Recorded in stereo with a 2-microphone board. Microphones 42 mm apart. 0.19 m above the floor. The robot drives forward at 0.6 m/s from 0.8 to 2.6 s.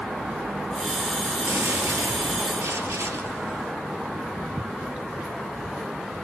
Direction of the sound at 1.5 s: 70° right (ahead or behind).